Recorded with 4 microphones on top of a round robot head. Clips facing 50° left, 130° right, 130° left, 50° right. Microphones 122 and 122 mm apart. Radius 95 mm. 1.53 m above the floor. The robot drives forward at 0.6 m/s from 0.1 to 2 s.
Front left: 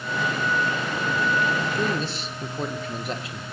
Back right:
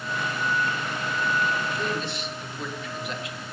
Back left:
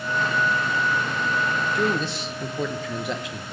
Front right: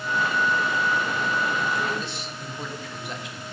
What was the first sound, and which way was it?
A man speaking, 95° left.